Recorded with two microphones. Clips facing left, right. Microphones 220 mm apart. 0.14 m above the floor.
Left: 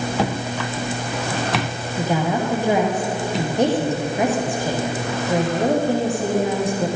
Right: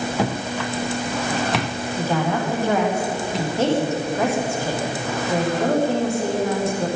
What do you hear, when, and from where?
2.0 s a woman speaking: 15° left (ahead or behind), 7 m